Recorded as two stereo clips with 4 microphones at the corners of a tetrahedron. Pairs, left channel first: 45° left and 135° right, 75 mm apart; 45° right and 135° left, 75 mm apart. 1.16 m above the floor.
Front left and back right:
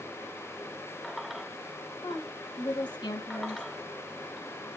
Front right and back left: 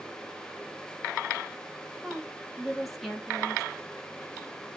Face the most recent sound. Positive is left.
turn(degrees=45)